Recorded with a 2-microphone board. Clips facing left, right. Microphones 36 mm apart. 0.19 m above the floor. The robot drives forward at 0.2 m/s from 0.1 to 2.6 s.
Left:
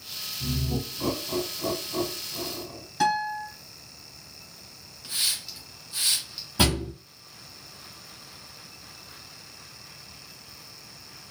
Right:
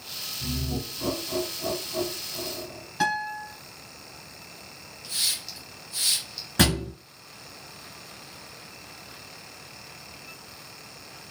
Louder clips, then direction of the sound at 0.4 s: Left 2 dB; 20° left (ahead or behind).